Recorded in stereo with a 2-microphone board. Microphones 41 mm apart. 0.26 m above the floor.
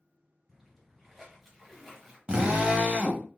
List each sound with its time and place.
0.5 s a splash: 5° right (ahead or behind), 2 m
2.3 s a drill: 25° right (ahead or behind), 0.8 m